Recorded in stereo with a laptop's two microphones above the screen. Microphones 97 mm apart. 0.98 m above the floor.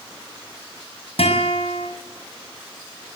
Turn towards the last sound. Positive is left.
turn(degrees=80)